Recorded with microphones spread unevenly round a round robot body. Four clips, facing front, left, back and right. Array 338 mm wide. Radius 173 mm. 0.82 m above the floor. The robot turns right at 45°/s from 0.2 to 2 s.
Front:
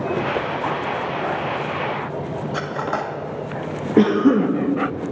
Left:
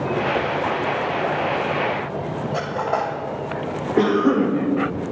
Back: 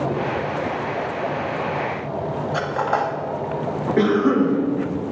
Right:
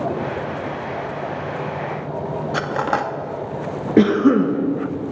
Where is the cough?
55° right, 1.1 m.